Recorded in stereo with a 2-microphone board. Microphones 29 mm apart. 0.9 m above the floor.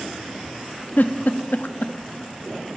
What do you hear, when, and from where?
1.0 s a giggle: 85° left, 0.6 m